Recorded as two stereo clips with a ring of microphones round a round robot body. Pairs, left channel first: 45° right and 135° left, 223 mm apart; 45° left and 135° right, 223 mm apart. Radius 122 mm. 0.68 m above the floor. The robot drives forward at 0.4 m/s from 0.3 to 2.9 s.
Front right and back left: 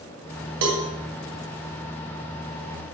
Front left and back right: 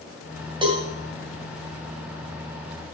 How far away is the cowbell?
About 2.5 m.